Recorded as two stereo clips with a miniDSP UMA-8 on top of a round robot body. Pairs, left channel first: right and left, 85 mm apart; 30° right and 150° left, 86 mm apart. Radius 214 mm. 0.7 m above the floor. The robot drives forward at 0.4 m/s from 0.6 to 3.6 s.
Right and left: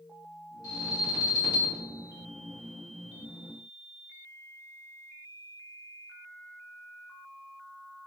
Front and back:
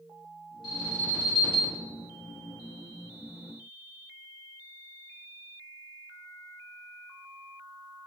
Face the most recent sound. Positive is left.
turn(degrees=-75)